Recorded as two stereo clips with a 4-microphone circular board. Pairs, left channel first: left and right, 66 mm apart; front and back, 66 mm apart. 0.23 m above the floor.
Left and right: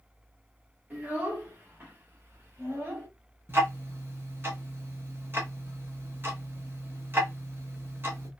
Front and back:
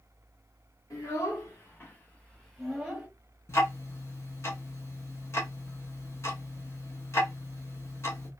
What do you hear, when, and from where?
0.9 s a child speaking: 30° right, 1.8 m; by 3.1 s 115° right, 1.0 m
3.5 s ticking: 40° right, 0.9 m